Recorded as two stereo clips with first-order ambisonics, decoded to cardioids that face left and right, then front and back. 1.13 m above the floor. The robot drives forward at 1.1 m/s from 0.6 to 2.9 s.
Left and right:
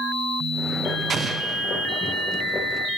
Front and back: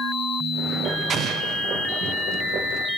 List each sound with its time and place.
1.1 s an explosion: 140° right, 0.7 m; by 1.7 s 165° right, 1.2 m